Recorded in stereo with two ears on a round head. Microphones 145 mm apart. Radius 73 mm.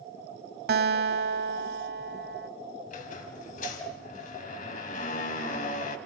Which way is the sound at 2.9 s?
55° left (ahead or behind).